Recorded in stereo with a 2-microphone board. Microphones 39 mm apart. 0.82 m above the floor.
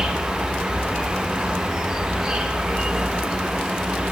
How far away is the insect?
About 2.5 m.